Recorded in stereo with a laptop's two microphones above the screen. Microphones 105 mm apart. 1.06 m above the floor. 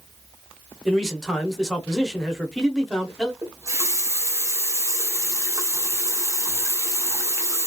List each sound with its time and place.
0.8 s a man speaking: centre (ahead or behind), 0.8 m
3.4 s a running tap: 30° right (ahead or behind), 0.6 m